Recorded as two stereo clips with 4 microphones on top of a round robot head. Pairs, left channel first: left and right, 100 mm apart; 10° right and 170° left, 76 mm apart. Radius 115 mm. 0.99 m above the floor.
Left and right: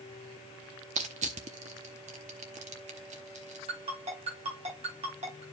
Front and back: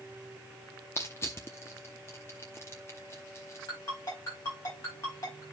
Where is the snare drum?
No snare drum in this recording.